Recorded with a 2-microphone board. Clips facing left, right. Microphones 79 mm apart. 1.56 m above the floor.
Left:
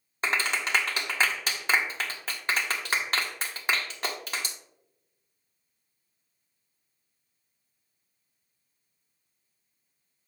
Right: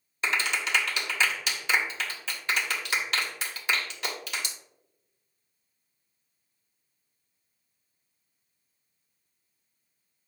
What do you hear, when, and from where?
0.2 s a clap: 35° left (ahead or behind), 1.3 m